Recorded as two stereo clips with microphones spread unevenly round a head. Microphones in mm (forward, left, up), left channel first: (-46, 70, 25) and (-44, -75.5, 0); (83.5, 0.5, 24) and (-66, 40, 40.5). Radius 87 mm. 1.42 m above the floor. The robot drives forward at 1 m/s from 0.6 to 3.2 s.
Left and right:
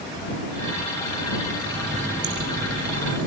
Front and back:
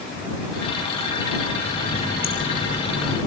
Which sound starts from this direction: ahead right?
A running tap, at 1.6 s.